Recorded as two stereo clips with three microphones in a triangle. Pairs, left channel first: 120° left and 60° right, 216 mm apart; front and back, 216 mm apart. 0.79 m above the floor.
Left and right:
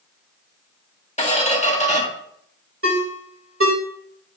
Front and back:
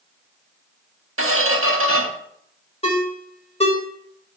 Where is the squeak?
175° left, 1.0 m.